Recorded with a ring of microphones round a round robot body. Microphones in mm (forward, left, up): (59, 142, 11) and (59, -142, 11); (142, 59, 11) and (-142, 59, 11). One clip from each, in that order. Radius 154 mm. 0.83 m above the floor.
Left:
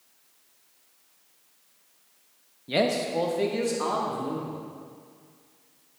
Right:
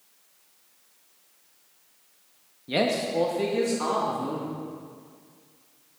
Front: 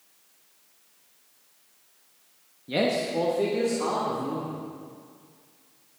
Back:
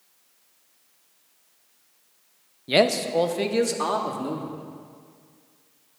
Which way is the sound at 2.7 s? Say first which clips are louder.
Even, back 5 dB; 175° left.